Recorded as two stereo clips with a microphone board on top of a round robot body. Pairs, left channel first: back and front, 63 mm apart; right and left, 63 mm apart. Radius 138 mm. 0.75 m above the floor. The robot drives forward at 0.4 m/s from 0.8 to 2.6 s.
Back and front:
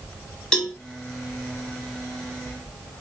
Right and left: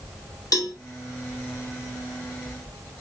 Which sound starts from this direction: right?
A cowbell, at 0.5 s.